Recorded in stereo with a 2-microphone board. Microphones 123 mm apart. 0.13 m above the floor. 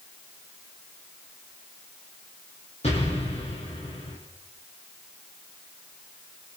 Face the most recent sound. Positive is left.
turn(degrees=60)  # may be behind; listen again after turning